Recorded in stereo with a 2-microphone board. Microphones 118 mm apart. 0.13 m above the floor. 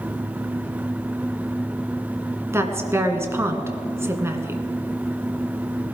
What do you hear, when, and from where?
2.5 s a woman speaking: 20° right (ahead or behind), 1.2 m